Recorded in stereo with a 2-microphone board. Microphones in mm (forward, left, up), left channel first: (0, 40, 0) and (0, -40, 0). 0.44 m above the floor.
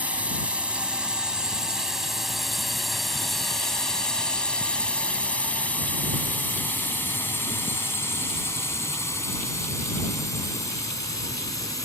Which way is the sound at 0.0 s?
20° right (ahead or behind).